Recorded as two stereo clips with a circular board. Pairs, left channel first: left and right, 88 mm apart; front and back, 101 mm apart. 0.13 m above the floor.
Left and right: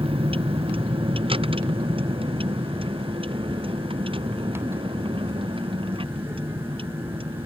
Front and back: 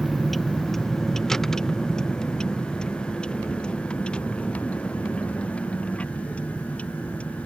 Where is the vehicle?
90° right; by 7.5 s 75° right.